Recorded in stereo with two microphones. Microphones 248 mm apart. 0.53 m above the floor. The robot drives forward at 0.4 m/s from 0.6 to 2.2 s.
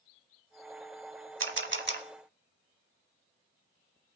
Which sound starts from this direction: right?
A camera shutter, at 1.4 s.